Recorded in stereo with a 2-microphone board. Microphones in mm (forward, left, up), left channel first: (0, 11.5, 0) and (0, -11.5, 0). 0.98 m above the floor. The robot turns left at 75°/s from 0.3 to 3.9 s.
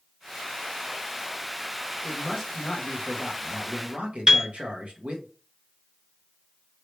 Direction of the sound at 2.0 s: 50° left.